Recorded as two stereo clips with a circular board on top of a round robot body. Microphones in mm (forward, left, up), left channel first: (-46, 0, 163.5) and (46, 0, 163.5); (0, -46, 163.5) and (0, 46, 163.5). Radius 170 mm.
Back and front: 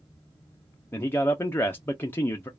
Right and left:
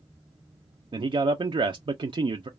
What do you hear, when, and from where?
0.9 s a man speaking: 115° left, 0.6 m